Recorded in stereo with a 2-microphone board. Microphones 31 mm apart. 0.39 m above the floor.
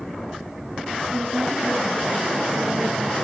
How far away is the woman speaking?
About 5.5 m.